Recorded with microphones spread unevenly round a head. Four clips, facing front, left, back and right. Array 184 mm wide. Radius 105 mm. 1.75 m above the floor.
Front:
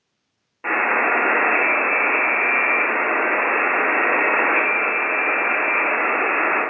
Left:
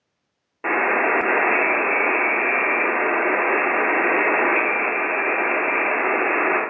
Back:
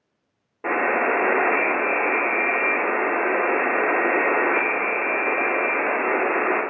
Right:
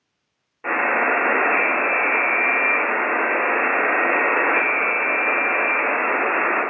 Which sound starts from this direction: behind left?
A buzzer, at 0.6 s.